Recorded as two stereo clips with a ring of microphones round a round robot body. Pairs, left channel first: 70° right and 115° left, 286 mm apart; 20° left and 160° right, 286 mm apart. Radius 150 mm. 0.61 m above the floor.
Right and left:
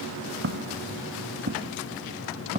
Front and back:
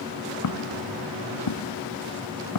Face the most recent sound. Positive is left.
turn(degrees=45)